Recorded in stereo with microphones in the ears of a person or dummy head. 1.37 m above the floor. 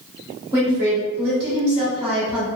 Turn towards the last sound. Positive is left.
turn(degrees=-10)  # may be behind; listen again after turning